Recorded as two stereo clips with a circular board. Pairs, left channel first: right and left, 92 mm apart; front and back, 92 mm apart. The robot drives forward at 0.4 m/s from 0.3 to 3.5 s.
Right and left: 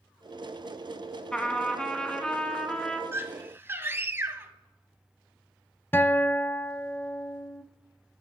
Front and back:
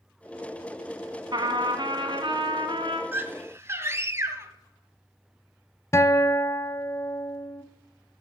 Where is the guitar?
40° right, 0.7 m.